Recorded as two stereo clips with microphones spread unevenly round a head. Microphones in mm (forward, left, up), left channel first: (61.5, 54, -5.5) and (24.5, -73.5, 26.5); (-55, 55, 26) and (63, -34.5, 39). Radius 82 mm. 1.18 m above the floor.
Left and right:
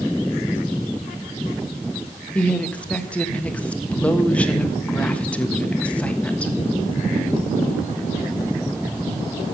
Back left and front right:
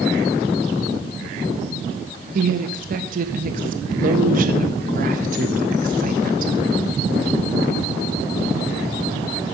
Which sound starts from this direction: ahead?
A woman speaking, at 2.4 s.